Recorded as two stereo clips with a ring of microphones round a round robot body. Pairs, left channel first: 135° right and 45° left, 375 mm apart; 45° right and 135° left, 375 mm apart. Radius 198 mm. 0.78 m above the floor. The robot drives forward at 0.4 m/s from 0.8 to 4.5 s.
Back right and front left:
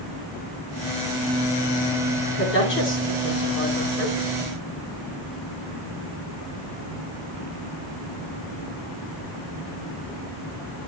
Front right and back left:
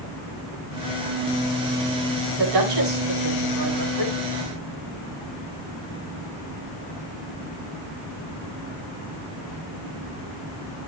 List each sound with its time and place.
2.4 s a woman speaking: 165° left, 8 m